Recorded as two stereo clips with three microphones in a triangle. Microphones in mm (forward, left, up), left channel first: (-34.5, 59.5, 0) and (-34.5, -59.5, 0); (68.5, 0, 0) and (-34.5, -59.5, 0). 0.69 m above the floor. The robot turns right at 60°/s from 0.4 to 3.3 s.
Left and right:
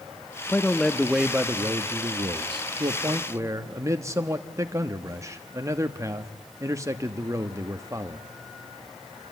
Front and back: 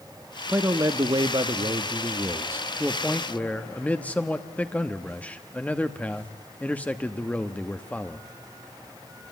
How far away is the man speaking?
About 1.0 m.